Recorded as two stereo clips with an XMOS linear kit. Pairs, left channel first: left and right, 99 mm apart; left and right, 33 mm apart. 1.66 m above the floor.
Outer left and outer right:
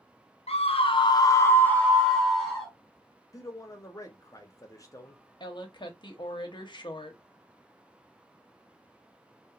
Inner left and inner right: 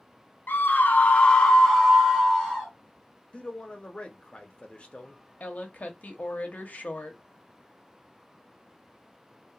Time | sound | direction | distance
0.5 | a scream | 85° left | 0.6 m
3.3 | a man speaking | 30° left (ahead or behind) | 0.7 m
5.4 | a woman speaking | 50° left (ahead or behind) | 0.8 m